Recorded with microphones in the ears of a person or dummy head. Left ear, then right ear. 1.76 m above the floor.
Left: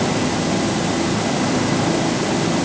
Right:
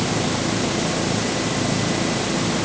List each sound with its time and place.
Only background noise.